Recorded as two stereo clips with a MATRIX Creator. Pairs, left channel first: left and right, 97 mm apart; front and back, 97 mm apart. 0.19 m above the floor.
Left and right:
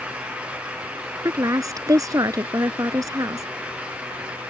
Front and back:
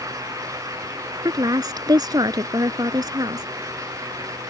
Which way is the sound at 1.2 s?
140° right.